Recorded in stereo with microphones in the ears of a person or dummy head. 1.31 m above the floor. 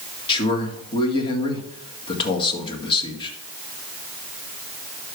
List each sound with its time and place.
0.3 s a man speaking: 25° left (ahead or behind), 2 m